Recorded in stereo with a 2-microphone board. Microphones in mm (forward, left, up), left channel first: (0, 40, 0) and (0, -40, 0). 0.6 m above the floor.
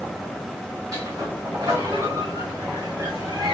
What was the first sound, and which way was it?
A sliding door, 55° right (ahead or behind).